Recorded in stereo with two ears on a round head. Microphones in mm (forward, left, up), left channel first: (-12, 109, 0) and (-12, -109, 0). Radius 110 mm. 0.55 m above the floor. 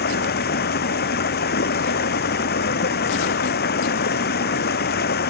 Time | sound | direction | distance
0.0 | running water | 40° left (ahead or behind) | ?